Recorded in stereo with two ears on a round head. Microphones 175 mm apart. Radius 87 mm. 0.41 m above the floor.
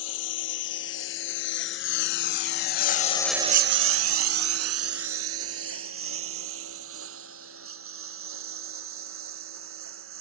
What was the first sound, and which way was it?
A lawn mower, 70° left (ahead or behind).